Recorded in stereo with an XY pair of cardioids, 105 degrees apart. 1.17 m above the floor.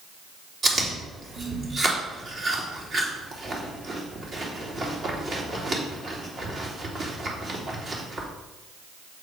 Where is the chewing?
45° right, 3 m.